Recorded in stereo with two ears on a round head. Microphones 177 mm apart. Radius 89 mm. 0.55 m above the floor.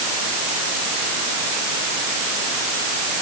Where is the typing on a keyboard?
No typing on a keyboard in this recording.